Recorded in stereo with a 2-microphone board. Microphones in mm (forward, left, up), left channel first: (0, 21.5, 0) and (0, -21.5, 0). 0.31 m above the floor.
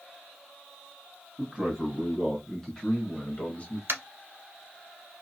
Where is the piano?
No piano in this recording.